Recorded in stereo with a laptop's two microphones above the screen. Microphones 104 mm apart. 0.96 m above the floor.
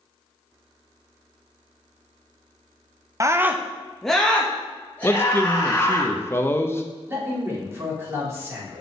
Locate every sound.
3.2 s a scream: 30° right (ahead or behind), 0.6 m; by 6.0 s 25° left (ahead or behind), 2 m
5.0 s a man speaking: 25° left (ahead or behind), 0.6 m
7.1 s a man speaking: 25° right (ahead or behind), 3 m